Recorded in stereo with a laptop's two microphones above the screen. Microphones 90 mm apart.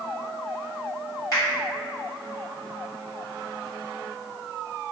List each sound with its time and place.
1.3 s a finger snap: 40° left (ahead or behind), 1.4 m